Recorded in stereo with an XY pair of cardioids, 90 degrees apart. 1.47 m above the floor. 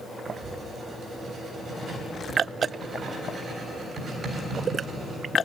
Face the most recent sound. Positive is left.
turn(degrees=-55)